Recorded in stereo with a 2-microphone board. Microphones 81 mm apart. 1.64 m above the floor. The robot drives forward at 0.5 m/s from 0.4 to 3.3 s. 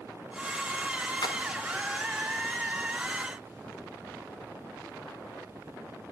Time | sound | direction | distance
1.2 | a splash | 60° left (ahead or behind) | 0.7 m